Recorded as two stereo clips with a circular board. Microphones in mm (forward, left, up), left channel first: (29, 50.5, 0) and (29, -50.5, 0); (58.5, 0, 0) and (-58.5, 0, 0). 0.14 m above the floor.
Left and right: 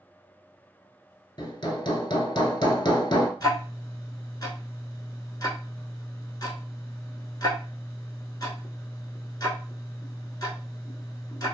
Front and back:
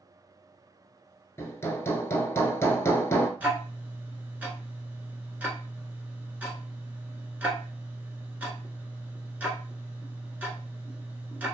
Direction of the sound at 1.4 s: 60° left.